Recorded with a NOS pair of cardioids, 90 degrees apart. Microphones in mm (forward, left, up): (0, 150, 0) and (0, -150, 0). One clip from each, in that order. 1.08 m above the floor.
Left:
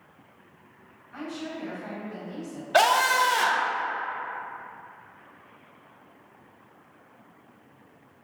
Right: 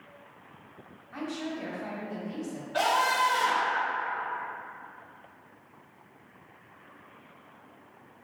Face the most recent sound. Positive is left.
turn(degrees=65)